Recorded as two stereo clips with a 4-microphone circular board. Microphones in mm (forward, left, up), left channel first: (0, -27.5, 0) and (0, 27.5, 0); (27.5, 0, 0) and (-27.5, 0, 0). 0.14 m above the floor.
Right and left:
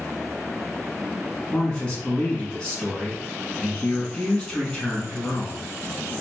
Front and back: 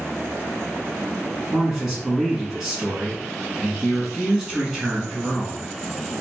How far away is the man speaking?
About 1.0 m.